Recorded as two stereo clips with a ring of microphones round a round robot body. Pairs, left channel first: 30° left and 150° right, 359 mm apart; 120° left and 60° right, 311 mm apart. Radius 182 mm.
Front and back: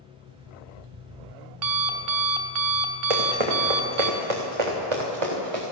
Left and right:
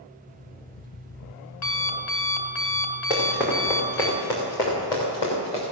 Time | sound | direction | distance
0.3 | an alarm clock | 175° left | 1.2 m
3.1 | running footsteps | 145° right | 3 m